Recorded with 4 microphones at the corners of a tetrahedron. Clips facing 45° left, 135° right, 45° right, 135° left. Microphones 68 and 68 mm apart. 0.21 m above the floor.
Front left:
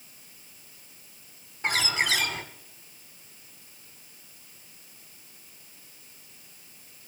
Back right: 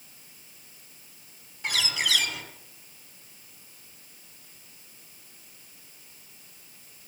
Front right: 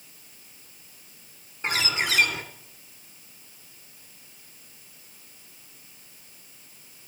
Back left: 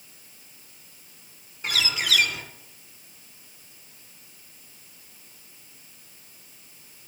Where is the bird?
Straight ahead, 1.5 m.